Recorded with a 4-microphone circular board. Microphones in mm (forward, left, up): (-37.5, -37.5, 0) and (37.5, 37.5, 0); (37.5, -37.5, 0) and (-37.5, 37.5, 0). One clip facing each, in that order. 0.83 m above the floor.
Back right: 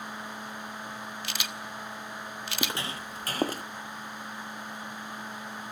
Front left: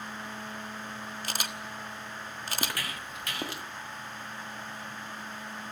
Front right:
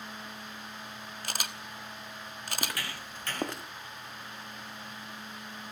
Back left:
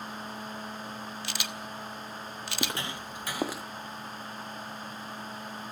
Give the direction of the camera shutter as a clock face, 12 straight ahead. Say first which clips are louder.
Front left 1 dB, back left 1 dB; 12 o'clock.